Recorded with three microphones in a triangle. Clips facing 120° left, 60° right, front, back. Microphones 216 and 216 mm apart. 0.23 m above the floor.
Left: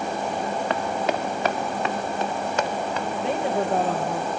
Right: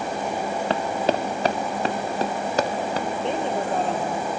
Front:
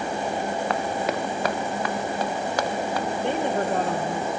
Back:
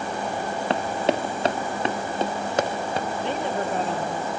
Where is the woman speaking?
35° left, 4.5 m.